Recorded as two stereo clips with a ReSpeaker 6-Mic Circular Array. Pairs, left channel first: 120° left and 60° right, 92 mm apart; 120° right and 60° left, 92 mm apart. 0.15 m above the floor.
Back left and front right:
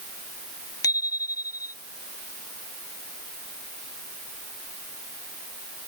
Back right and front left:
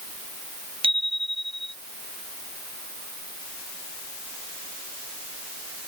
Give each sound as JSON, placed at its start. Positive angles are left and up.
{"t": 0.8, "sound": "a bicycle bell", "azimuth_deg": 70}